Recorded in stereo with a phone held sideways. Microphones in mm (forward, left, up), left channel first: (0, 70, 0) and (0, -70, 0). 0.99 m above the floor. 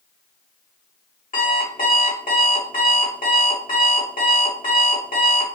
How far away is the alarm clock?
About 1.5 m.